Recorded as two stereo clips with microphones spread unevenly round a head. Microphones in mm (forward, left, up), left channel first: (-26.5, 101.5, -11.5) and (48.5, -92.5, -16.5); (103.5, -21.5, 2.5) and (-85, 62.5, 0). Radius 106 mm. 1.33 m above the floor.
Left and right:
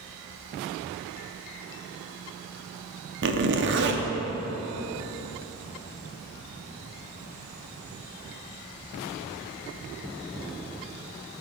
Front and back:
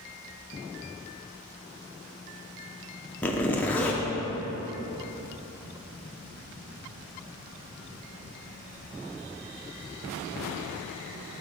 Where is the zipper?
110° right, 0.6 m.